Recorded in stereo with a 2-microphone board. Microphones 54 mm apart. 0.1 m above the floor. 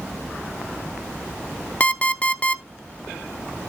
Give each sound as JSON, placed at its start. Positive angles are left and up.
{"t": 1.8, "sound": "an alarm clock", "side_deg": 25, "distance_m": 0.6}